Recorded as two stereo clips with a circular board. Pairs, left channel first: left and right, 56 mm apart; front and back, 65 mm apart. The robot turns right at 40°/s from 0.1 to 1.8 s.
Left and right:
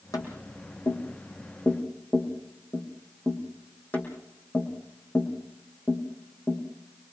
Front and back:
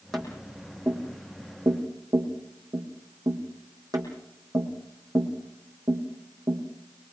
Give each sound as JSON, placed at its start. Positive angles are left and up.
{"t": 0.1, "sound": "tapping", "azimuth_deg": 85, "distance_m": 5.0}